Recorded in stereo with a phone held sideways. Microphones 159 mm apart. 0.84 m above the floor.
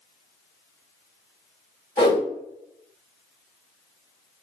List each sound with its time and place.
2.0 s a whoosh: 30° left (ahead or behind), 1.4 m